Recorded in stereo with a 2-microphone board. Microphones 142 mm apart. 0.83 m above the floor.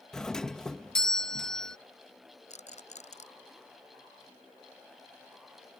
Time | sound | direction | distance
0.1 | a doorbell | 5° left (ahead or behind) | ?
2.5 | a rattle | 60° left (ahead or behind) | ?